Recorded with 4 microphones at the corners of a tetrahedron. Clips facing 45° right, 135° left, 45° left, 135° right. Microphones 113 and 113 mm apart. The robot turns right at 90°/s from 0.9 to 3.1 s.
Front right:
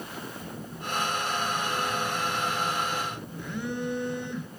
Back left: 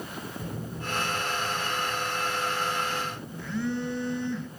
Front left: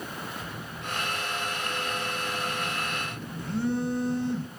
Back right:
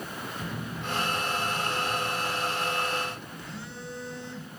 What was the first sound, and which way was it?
A phone buzzing, 175° right.